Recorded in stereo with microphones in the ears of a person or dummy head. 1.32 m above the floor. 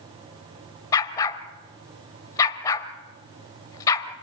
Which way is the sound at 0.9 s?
20° left (ahead or behind).